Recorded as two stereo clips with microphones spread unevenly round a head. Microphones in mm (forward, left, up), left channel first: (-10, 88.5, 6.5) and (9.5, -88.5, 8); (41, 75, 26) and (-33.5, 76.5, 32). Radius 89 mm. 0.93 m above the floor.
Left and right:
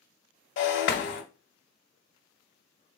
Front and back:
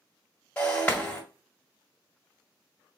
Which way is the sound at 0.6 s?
70° left.